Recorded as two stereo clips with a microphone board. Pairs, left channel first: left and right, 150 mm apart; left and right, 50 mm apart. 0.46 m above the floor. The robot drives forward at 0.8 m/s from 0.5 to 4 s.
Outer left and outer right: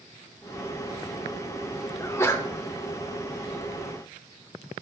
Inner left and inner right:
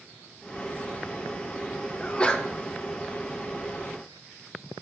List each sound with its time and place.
2.0 s a sneeze: 20° left (ahead or behind), 1.1 m; by 2.5 s 15° left (ahead or behind), 1.3 m